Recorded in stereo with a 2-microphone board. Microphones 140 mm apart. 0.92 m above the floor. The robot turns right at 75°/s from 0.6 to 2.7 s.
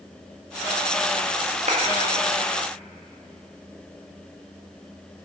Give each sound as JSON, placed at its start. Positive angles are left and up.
{"t": 1.7, "sound": "a clap", "side_deg": -55, "distance_m": 1.3}